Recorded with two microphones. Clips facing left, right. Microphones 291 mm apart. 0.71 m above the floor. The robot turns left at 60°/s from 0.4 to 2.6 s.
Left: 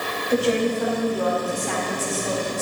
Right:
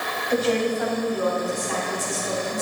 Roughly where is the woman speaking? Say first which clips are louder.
Left 1 dB; behind.